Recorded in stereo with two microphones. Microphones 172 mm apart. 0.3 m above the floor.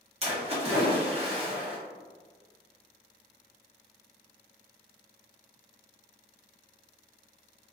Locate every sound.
0.2 s a splash: 35° right (ahead or behind), 1.0 m